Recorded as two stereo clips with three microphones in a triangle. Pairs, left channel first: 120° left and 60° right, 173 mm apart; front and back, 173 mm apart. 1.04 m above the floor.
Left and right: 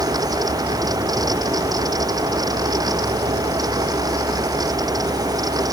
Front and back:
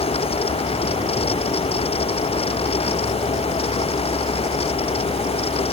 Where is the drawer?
I don't hear a drawer.